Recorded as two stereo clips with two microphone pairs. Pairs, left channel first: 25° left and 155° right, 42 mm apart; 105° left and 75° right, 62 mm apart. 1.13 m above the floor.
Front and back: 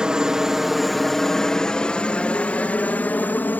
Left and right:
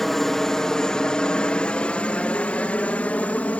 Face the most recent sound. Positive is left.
turn(degrees=45)